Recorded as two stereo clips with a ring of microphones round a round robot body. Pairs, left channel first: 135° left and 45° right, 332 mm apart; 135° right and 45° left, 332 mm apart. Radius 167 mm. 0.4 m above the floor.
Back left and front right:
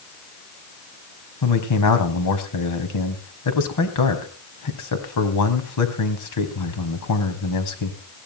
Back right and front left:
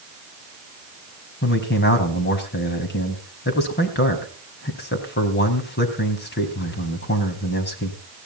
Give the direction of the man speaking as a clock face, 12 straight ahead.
6 o'clock.